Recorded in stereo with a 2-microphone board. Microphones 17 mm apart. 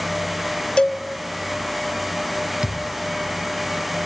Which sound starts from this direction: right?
A thud, at 2.6 s.